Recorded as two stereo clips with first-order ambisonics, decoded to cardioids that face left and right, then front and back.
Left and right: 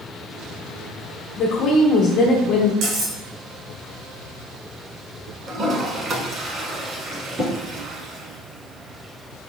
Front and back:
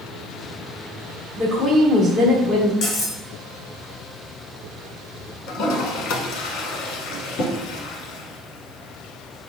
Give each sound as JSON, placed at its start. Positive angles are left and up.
{"t": 1.4, "sound": "a woman speaking", "azimuth_deg": 100, "distance_m": 1.2}
{"t": 2.8, "sound": "cutlery clinking", "azimuth_deg": -50, "distance_m": 2.0}
{"t": 5.5, "sound": "a toilet flushing", "azimuth_deg": -25, "distance_m": 1.0}